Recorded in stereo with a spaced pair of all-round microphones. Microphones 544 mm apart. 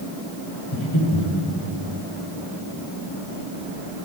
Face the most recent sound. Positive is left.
turn(degrees=50)  # may be behind; listen again after turning